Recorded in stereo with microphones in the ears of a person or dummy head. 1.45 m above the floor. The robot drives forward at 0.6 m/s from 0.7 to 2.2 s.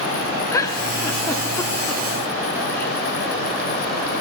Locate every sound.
0.5 s a giggle: 20° left (ahead or behind), 1.9 m; by 2.9 s 15° left (ahead or behind), 2.5 m